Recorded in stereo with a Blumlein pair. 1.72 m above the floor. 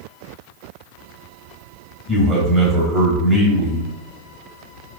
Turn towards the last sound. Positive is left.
turn(degrees=10)